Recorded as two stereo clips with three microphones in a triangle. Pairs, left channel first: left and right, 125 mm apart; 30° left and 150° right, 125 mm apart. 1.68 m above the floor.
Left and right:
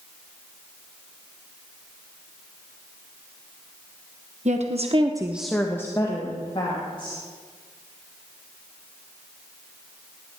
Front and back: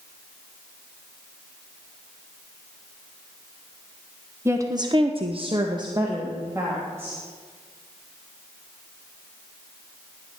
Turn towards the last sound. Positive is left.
turn(degrees=140)